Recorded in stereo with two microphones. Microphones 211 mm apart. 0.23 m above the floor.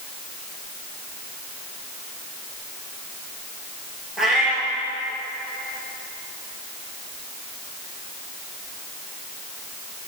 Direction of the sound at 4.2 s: Centre (ahead or behind).